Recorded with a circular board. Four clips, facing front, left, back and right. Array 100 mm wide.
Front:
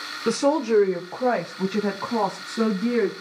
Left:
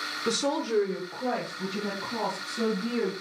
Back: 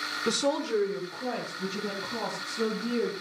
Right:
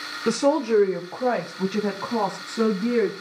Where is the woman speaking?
50° right, 0.8 m; by 3.1 s 35° right, 4 m.